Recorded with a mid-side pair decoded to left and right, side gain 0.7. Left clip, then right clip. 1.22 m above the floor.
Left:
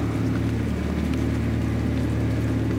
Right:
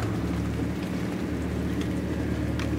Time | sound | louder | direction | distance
0.0 | an engine running | left 4 dB | 65° left | 1.0 m